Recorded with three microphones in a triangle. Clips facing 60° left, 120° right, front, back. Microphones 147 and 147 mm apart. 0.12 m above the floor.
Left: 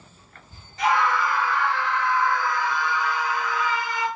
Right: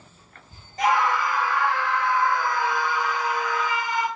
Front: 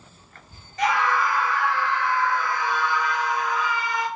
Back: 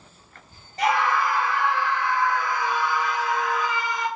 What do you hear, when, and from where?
0.8 s a scream: 140° right, 1.9 m; by 4.1 s 90° right, 2.5 m